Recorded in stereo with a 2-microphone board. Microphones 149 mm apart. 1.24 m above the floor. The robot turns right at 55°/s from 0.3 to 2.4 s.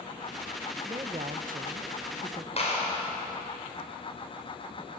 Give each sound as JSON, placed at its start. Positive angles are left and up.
{"t": 0.8, "sound": "a woman speaking", "azimuth_deg": -150, "distance_m": 1.0}
{"t": 2.6, "sound": "a clap", "side_deg": 45, "distance_m": 5.0}